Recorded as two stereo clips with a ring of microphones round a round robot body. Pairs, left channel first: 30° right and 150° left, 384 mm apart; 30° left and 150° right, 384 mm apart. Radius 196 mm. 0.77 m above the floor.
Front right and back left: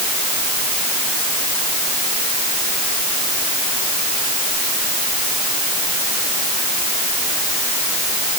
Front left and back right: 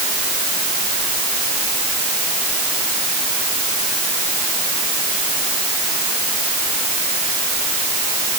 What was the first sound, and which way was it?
Only background noise.